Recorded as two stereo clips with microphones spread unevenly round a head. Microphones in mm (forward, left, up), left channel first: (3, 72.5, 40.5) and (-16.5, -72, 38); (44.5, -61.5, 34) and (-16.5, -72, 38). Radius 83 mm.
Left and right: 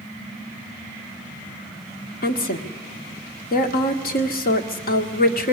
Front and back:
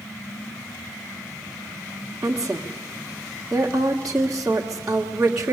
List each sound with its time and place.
2.2 s a woman speaking: 110° left, 1.9 m